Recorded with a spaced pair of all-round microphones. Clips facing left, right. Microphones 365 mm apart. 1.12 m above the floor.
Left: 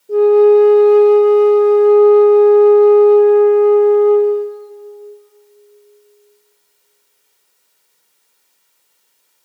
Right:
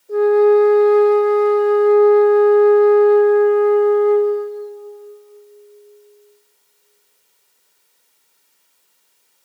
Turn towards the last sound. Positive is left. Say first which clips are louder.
# left 4 dB
turn(degrees=45)  # may be behind; listen again after turning